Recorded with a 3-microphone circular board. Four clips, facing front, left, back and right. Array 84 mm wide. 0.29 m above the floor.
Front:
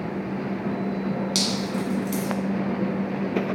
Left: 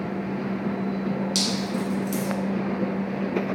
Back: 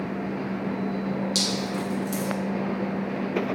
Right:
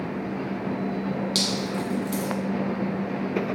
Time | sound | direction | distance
1.4 | dripping | 15° right | 1.1 m